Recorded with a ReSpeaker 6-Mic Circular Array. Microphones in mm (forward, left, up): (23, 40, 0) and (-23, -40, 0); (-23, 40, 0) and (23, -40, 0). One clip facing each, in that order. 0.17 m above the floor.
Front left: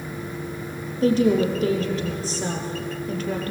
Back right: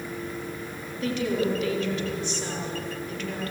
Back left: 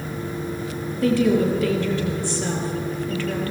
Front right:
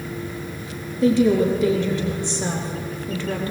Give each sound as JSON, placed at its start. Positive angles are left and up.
{"t": 1.0, "sound": "a woman speaking", "azimuth_deg": 10, "distance_m": 4.5}